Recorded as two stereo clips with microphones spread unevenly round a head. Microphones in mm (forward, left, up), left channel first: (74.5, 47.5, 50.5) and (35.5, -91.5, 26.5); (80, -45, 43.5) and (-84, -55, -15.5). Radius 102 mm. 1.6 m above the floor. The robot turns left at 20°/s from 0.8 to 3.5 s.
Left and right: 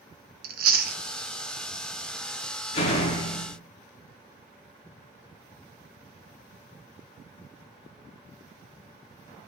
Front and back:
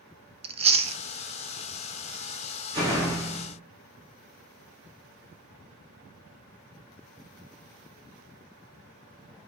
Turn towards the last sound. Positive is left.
turn(degrees=90)